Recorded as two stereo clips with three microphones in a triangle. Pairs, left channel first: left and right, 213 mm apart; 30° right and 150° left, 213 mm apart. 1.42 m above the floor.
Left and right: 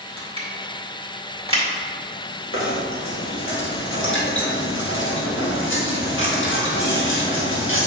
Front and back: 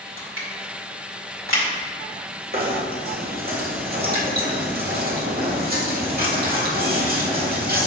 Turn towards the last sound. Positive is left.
turn(degrees=110)